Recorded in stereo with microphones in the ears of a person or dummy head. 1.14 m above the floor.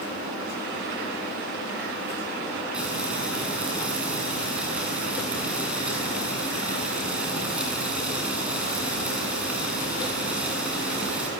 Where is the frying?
5° right (ahead or behind), 8 m.